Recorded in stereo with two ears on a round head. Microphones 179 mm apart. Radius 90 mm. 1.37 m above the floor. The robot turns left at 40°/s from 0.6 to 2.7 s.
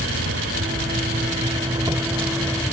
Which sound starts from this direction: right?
An insect, at 0.0 s.